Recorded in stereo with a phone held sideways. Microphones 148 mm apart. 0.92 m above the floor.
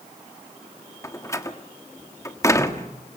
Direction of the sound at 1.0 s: 20° left (ahead or behind).